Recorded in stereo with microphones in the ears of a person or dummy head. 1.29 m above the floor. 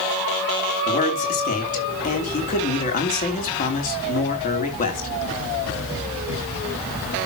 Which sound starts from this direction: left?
A man speaking, at 0.9 s.